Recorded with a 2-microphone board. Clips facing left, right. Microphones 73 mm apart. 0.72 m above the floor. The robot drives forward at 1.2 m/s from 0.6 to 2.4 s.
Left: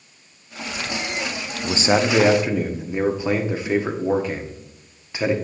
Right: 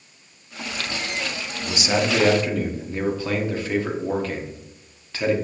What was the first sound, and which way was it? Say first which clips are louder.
A man speaking: left 4 dB; 35° left (ahead or behind).